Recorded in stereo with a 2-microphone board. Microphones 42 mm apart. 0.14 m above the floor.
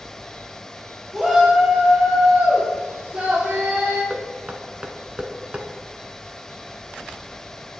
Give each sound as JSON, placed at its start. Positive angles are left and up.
{"t": 1.1, "sound": "a shout", "side_deg": -5, "distance_m": 2.5}
{"t": 4.1, "sound": "knocking", "side_deg": -25, "distance_m": 0.9}